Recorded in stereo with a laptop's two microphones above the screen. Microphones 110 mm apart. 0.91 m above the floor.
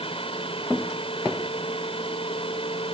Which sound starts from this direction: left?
A fan, at 0.0 s.